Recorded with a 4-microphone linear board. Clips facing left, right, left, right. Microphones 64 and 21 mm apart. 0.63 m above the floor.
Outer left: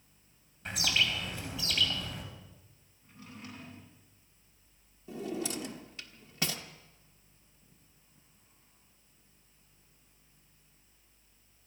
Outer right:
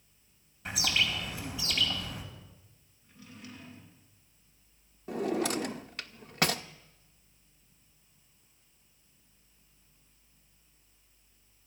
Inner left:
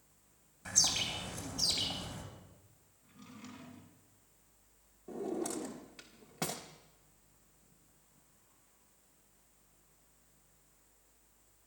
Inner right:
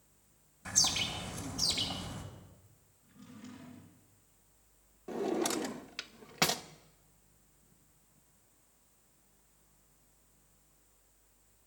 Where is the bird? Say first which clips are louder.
Even, inner right 1 dB; 5° right (ahead or behind), 3 m.